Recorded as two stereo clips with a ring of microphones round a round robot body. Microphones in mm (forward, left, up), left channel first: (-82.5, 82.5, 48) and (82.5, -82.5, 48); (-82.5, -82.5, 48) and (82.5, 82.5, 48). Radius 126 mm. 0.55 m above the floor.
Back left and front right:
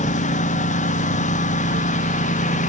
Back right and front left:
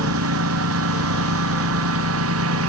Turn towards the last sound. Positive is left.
turn(degrees=75)